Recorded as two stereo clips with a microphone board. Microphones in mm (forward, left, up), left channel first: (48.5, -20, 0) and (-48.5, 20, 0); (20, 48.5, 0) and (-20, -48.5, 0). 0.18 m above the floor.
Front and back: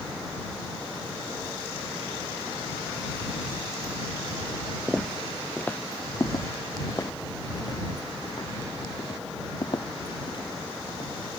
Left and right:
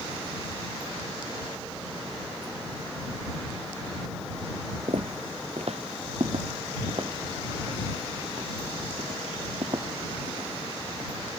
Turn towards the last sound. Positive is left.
turn(degrees=-65)